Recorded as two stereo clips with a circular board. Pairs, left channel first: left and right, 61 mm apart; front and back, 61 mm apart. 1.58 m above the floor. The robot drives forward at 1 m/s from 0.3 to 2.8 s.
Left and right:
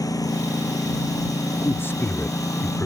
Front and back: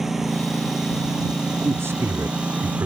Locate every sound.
0.0 s a lawn mower: 95° left; by 2.9 s 110° left
1.6 s a man speaking: 135° left; by 2.9 s 145° left